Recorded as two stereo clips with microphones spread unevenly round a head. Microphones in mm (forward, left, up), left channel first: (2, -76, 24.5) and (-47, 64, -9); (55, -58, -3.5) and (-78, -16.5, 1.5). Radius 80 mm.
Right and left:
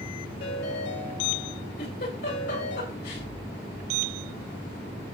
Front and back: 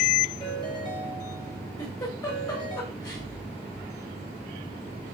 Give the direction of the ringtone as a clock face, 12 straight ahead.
2 o'clock.